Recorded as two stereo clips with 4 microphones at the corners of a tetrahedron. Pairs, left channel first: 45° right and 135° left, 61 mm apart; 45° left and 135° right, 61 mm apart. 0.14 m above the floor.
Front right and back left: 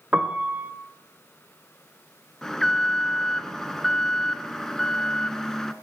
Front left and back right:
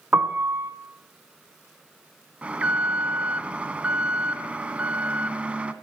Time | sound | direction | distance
0.1 | a piano | 170° right | 1.2 m
2.4 | an alarm | 115° right | 0.9 m